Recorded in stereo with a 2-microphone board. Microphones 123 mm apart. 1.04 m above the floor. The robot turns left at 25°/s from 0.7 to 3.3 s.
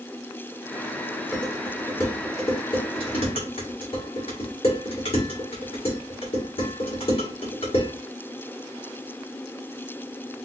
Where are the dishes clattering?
5° left (ahead or behind), 2 m; by 7.9 s 55° left (ahead or behind), 2 m.